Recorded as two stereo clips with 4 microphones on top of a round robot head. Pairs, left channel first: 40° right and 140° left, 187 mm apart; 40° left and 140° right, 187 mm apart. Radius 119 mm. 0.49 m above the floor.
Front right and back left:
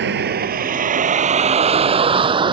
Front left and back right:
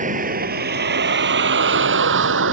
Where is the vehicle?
170° left; by 2.5 s 155° right.